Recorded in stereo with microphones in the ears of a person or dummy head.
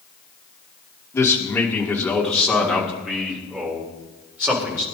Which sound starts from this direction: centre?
A man speaking, at 1.1 s.